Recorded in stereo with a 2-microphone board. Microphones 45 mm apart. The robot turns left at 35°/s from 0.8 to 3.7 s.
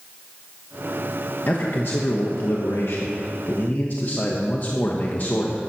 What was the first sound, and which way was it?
A man speaking, 125° left.